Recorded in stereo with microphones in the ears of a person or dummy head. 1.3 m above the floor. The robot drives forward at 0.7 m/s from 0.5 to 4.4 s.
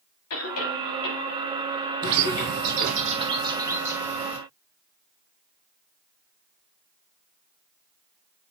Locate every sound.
0.3 s a cough: 85° left, 3.5 m; by 2.9 s 65° left (ahead or behind), 4 m
2.0 s a bird: 40° right (ahead or behind), 0.7 m; by 4.4 s 15° right (ahead or behind), 1.4 m